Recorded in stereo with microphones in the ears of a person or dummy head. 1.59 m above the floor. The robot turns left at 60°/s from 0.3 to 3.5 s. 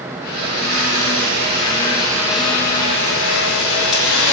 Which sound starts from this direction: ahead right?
A blender, at 0.3 s.